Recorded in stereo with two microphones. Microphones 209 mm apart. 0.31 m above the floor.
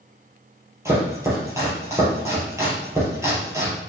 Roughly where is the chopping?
Centre.